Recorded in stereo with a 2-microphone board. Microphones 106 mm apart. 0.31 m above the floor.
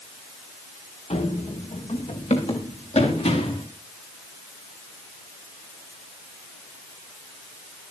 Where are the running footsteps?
75° left (ahead or behind), 2.5 m; by 3.6 s 85° left, 5.5 m.